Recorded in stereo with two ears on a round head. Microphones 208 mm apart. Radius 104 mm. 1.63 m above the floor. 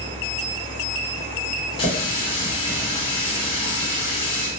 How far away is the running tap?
About 1.0 m.